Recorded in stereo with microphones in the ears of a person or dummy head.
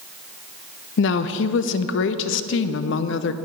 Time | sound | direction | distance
1.0 | a woman speaking | 65° left (ahead or behind) | 0.5 m